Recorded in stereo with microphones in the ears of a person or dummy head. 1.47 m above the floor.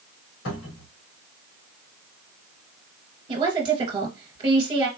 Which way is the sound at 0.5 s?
75° left (ahead or behind).